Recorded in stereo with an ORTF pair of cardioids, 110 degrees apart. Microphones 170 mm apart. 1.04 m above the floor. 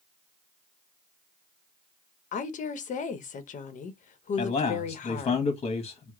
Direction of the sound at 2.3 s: 50° left.